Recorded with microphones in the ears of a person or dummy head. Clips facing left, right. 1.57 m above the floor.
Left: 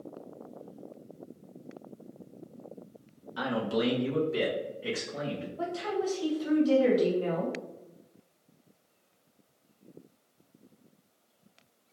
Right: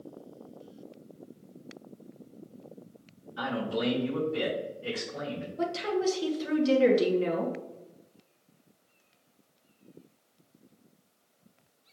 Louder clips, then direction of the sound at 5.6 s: Right 3 dB; 35° right (ahead or behind).